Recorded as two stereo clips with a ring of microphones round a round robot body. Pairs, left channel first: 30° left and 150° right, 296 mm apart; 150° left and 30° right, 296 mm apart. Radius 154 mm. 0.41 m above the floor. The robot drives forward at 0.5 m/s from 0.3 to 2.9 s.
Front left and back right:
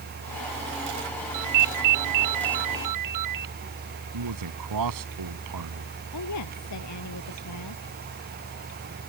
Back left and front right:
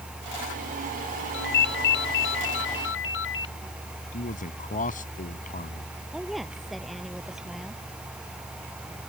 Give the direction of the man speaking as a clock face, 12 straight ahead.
5 o'clock.